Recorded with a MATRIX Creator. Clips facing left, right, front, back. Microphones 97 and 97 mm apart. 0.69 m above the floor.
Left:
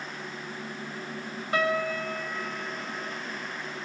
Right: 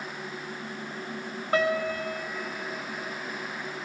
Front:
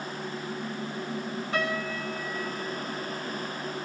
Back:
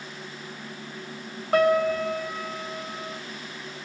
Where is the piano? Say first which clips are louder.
Right 1 dB, back 12 dB; 145° right, 3 m.